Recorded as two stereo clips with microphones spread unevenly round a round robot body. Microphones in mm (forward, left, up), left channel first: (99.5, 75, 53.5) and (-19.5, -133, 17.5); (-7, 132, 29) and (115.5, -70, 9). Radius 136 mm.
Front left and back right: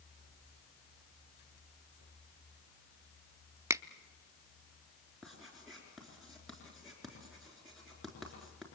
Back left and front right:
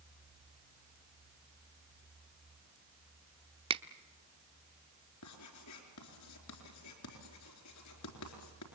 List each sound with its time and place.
3.7 s a finger snap: 75° right, 0.7 m
5.2 s writing: 150° left, 4 m